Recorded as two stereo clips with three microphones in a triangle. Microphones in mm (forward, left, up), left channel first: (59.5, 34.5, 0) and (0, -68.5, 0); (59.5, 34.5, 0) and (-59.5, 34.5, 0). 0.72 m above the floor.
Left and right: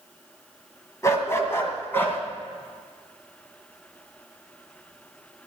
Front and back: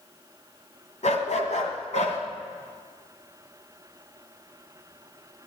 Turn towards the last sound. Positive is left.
turn(degrees=-15)